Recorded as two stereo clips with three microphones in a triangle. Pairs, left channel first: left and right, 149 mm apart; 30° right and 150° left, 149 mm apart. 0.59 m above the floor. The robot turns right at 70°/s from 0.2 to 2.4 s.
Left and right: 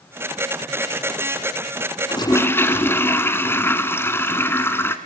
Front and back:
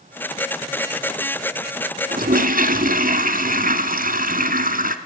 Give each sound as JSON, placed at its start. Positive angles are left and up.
{"t": 2.1, "sound": "a toilet flushing", "azimuth_deg": 145, "distance_m": 1.2}